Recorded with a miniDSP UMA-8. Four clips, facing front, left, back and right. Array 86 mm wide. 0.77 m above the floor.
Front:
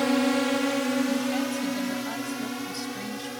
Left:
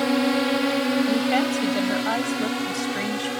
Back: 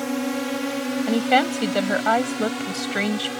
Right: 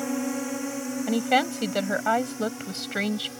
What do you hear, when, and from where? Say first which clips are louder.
0.0 s a drone: left 8 dB, front 2 dB; 65° left; by 3.4 s 115° left
1.1 s a woman speaking: left 2 dB, back 7 dB; 165° right